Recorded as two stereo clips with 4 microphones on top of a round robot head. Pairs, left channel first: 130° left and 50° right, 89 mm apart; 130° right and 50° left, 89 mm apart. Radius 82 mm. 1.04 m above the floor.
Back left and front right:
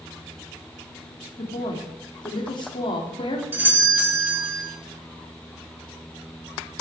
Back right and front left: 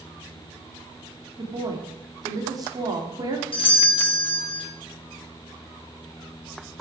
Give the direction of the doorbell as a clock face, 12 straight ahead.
4 o'clock.